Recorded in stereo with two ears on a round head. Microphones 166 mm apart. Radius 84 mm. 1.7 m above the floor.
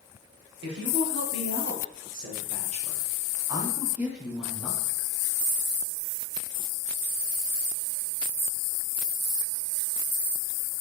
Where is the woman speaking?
65° right (ahead or behind), 2.5 m; by 5.1 s 10° left (ahead or behind), 2 m.